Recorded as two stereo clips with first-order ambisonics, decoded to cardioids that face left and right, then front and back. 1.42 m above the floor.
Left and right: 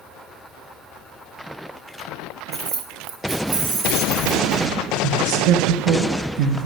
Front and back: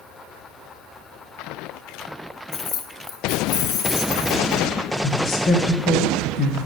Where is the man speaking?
65° right, 0.9 m.